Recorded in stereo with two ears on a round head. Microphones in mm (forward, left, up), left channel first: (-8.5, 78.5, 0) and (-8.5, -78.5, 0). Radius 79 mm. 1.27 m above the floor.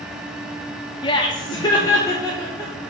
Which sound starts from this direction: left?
Laughter, at 1.0 s.